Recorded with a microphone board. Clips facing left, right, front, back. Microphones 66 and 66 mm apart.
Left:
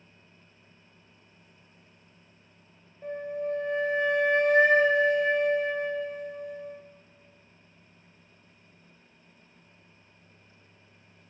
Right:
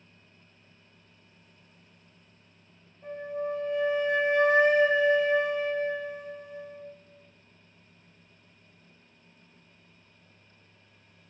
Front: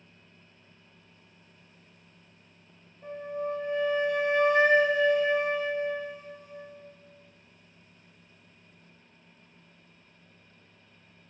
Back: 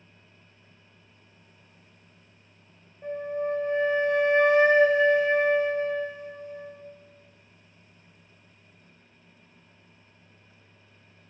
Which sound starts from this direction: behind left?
A flute, at 3.0 s.